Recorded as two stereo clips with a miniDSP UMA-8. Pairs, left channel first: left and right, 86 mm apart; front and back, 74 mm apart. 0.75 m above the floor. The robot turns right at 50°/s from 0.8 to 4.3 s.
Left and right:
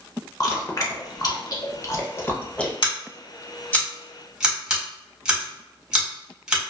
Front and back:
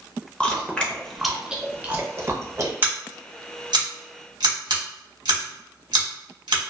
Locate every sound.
0.4 s chewing: 70° left, 0.6 m; by 2.7 s 165° left, 0.6 m
2.8 s scissors: 115° left, 1.0 m; by 6.6 s 170° right, 1.0 m